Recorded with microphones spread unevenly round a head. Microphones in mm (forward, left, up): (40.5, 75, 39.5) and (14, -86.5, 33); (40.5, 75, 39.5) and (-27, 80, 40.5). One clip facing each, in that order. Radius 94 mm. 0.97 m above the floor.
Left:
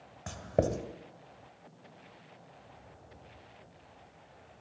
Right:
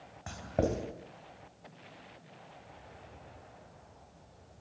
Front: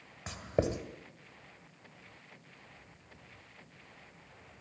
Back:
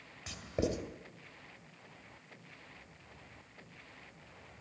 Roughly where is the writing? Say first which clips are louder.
Left 2 dB, front 3 dB; ahead left.